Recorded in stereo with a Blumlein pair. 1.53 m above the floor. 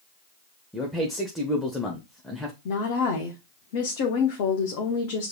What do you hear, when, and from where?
0.7 s a man speaking: 5° left, 0.8 m
2.6 s a woman speaking: 45° left, 0.9 m